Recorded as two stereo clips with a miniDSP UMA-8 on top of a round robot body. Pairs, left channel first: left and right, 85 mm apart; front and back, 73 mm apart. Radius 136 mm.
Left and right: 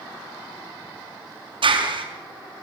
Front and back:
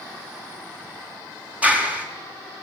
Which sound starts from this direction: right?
A clap, at 1.6 s.